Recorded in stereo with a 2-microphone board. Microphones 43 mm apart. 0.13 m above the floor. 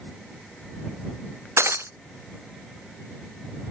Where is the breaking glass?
90° right.